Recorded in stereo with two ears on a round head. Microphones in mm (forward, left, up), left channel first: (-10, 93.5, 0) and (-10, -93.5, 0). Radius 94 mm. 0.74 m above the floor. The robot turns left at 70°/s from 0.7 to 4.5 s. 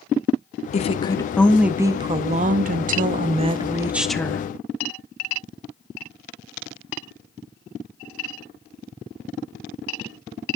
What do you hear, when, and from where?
0.7 s a woman speaking: 55° left, 0.7 m; by 4.5 s 150° left, 0.7 m